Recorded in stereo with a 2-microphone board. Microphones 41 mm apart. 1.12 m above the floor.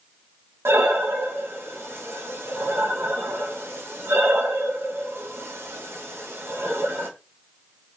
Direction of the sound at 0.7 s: 80° right.